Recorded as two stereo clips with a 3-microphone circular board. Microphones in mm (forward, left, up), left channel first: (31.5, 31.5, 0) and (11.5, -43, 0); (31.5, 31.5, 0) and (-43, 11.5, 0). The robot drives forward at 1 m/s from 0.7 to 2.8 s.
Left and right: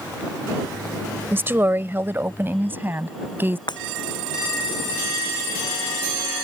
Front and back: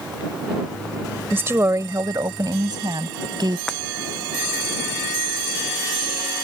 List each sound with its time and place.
1.3 s a woman speaking: 130° right; by 3.6 s 165° right
3.7 s breaking glass: 95° left